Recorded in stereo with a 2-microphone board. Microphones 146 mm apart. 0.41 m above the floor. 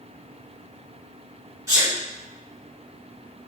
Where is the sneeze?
25° right (ahead or behind), 1.3 m.